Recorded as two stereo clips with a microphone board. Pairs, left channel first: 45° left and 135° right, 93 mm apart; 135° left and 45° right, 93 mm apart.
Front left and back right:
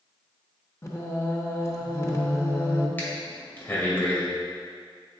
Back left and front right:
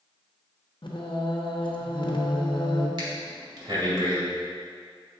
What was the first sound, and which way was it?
Singing, 105° left.